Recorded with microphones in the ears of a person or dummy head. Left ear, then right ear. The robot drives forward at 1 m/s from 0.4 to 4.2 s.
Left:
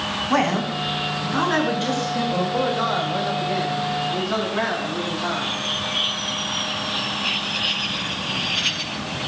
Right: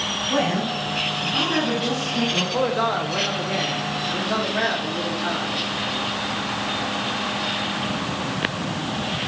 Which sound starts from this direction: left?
A woman speaking, at 0.3 s.